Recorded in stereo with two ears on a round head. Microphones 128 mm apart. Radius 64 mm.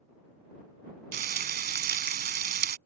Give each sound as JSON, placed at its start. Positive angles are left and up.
{"t": 1.1, "sound": "frying", "side_deg": -70}